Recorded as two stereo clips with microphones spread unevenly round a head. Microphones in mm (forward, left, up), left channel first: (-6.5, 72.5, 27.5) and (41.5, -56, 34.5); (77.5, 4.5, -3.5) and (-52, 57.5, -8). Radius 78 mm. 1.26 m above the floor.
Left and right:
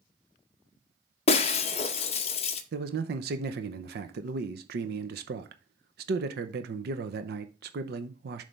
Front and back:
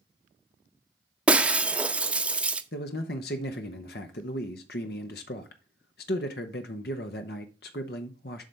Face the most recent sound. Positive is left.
turn(degrees=-55)